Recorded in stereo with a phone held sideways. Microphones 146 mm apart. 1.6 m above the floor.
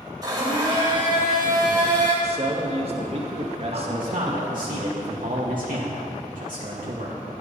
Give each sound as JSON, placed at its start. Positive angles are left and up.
{"t": 0.2, "sound": "a blender", "side_deg": -25, "distance_m": 5.5}
{"t": 2.2, "sound": "a man speaking", "side_deg": -45, "distance_m": 2.0}
{"t": 3.7, "sound": "a man speaking", "side_deg": -70, "distance_m": 1.8}